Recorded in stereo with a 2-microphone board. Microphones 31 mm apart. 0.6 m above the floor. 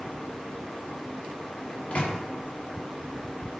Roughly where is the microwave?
Left.